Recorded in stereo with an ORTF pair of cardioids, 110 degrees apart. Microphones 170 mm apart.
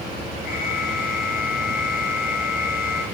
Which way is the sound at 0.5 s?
60° left.